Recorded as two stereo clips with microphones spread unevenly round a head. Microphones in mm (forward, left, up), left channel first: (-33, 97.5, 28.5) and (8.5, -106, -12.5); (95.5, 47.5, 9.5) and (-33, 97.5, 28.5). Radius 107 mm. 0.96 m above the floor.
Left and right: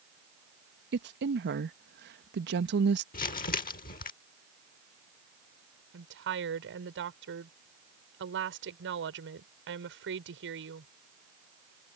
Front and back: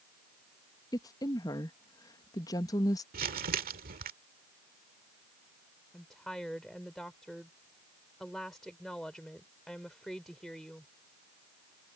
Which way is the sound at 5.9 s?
110° right.